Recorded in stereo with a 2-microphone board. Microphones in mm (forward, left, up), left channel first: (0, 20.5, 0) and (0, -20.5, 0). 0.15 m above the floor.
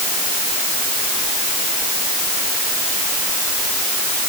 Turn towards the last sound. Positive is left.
No sound to turn to.